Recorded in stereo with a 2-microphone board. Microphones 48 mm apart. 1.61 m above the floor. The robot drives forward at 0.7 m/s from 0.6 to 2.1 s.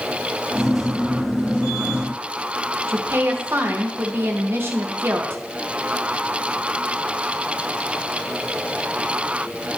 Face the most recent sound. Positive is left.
turn(degrees=-50)  # may be behind; listen again after turning